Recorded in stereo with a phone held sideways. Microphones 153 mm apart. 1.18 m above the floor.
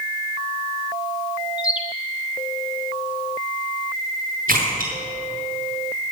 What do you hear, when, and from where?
1.6 s a bird: 5° right (ahead or behind), 1.1 m
4.5 s a splash: 65° right (ahead or behind), 5 m